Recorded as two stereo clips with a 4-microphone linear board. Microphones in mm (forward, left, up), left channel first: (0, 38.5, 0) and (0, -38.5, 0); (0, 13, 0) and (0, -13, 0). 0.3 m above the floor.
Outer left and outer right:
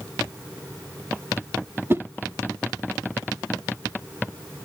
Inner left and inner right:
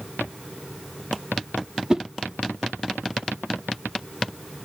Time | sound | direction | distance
1.9 | a whoosh | 30° right (ahead or behind) | 0.7 m